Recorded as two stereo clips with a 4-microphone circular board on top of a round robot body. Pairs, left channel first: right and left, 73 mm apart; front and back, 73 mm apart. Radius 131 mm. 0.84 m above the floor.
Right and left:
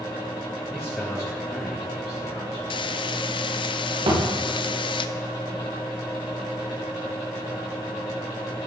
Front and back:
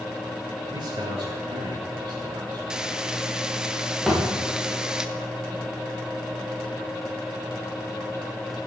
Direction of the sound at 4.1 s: 90° left.